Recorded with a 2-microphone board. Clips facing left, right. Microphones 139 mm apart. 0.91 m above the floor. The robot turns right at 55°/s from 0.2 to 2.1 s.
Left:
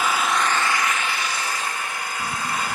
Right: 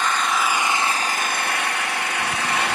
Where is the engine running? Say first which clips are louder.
Even; 175° left, 0.9 m; by 2.8 s 80° right, 0.9 m.